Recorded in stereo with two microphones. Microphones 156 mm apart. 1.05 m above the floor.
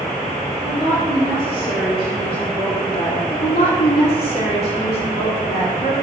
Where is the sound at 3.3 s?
75° left (ahead or behind), 3 m.